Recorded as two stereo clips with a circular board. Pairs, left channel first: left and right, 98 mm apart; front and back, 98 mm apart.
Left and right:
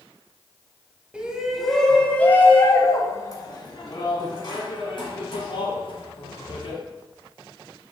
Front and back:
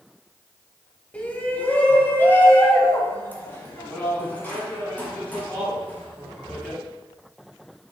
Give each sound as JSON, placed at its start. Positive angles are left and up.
{"t": 1.1, "sound": "a shout", "azimuth_deg": -40, "distance_m": 1.1}